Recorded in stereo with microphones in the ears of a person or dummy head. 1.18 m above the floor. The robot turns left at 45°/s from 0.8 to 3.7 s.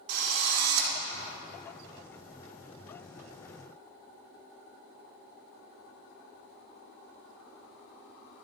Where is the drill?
90° right, 1.8 m; by 0.9 s 85° right, 1.8 m.